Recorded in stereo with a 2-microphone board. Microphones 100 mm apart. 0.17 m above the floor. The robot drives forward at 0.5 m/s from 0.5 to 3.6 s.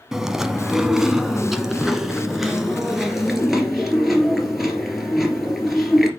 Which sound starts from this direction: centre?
Chewing, at 0.1 s.